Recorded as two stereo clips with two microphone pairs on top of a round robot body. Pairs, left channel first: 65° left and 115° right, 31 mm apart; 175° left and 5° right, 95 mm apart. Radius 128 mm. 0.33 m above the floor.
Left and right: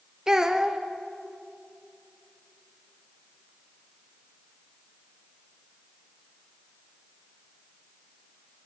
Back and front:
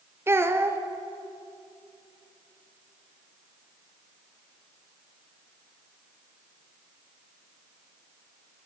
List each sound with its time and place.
0.3 s a child speaking: 60° right, 1.2 m